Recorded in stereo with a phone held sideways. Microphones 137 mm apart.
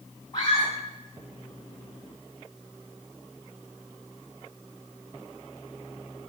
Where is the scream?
30° left (ahead or behind), 7.5 m.